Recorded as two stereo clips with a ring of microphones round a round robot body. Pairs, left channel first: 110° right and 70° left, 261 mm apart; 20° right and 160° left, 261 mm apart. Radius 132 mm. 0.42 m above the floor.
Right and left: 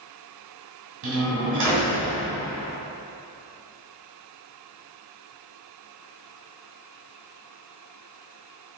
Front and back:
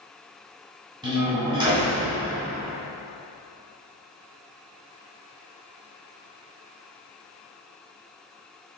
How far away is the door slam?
About 1.9 m.